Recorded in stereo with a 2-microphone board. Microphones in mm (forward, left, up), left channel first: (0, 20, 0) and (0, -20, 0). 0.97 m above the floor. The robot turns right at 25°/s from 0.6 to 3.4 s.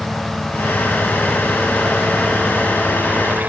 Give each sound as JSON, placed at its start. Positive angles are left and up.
{"t": 0.0, "sound": "a helicopter", "azimuth_deg": 165}